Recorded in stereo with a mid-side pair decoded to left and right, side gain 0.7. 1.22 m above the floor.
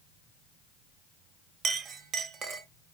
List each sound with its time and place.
1.6 s a clink: 40° right, 0.6 m